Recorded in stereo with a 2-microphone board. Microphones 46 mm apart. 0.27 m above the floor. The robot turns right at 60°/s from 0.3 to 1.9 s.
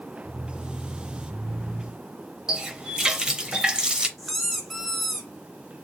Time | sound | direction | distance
2.5 | a running tap | 20° right (ahead or behind) | 0.6 m
4.2 | a squeak | centre (ahead or behind) | 0.7 m